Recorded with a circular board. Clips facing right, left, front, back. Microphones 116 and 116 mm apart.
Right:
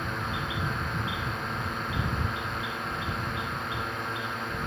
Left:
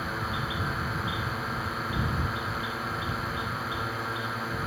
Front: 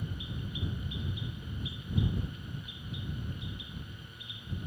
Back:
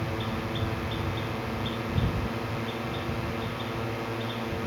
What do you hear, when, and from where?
0.0 s a drone: 175° left